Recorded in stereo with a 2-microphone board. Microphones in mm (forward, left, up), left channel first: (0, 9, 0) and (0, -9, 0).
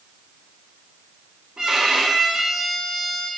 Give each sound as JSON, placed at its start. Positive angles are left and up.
{"t": 1.6, "sound": "a violin", "side_deg": -35, "distance_m": 0.9}